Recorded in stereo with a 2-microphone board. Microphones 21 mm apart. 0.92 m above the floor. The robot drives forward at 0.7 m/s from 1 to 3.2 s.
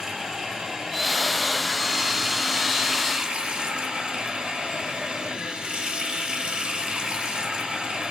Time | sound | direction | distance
0.0 | running water | 25° right (ahead or behind) | 2.5 m